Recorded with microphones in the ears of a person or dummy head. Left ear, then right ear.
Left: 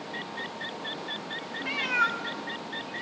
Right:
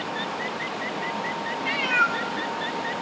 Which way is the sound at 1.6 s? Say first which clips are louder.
Right 4 dB; 5° right (ahead or behind).